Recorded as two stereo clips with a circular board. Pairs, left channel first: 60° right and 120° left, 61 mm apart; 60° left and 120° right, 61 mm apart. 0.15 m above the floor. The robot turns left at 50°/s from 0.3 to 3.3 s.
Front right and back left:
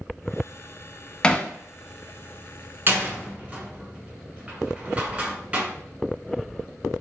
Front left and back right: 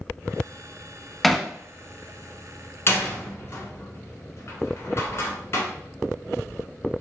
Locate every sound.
1.2 s hammering: 25° right, 0.5 m; by 1.5 s 35° right, 0.5 m
2.9 s a door slam: 85° left, 1.3 m; by 5.7 s 65° left, 1.3 m